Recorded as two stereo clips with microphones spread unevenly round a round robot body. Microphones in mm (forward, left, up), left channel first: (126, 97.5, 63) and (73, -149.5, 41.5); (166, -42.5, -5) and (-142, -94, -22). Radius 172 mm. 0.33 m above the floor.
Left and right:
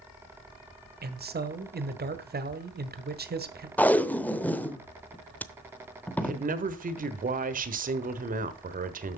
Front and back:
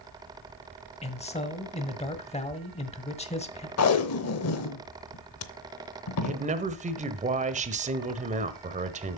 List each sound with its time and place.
1.0 s a man speaking: 60° right, 1.6 m
3.8 s tape being pulled: 10° right, 0.9 m
6.2 s a man speaking: 120° right, 1.2 m